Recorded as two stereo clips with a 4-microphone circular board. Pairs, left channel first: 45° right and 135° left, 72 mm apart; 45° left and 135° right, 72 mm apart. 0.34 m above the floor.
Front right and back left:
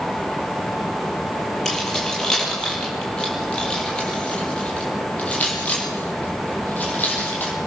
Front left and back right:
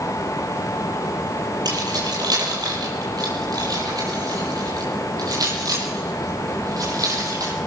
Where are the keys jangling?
125° right, 8 m; by 7.5 s 110° right, 10 m.